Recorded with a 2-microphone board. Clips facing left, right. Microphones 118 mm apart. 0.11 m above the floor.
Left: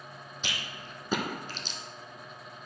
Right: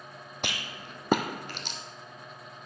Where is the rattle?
65° right (ahead or behind), 1.0 m.